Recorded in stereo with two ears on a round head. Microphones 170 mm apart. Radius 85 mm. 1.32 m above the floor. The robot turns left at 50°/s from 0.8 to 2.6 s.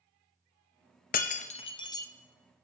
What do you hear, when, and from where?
1.1 s breaking glass: 45° left (ahead or behind), 0.7 m; by 2.1 s 15° left (ahead or behind), 0.7 m